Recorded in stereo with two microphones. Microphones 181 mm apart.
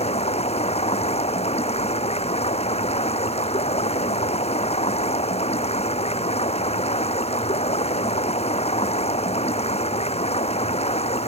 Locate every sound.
0.0 s running water: 35° left (ahead or behind)